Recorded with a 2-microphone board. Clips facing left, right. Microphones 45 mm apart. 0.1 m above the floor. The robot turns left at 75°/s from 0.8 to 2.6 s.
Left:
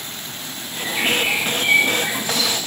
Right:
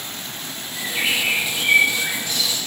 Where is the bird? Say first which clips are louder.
Left 2 dB; 160° right, 5.5 m; by 2.6 s 70° left, 5.5 m.